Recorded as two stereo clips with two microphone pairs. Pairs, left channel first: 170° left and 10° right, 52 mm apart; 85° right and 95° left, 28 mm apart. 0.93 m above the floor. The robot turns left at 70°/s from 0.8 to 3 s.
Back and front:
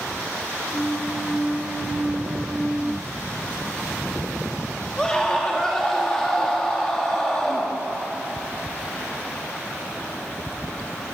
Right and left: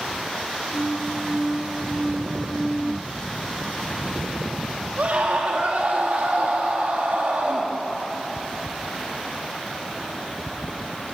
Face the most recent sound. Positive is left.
turn(degrees=95)